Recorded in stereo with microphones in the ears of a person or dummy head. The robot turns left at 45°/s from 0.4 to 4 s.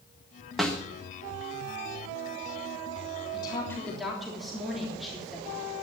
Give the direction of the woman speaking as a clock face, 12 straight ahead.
11 o'clock.